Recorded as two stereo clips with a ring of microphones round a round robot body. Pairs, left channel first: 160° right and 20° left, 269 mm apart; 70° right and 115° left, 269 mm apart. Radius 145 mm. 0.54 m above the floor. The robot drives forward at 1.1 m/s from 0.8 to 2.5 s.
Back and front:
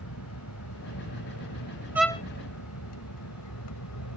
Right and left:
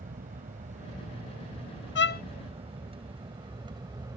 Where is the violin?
55° right; by 2.2 s 110° right.